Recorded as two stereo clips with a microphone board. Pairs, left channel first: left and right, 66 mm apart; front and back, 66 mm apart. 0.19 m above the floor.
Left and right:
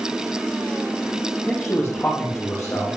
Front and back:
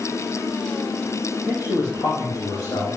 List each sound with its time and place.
1.5 s a man speaking: 10° left, 5 m